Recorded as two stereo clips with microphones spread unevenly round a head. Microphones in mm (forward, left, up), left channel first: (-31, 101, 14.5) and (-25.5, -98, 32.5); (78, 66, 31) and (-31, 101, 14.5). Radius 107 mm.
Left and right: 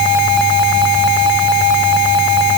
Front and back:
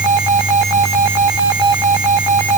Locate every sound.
Only background noise.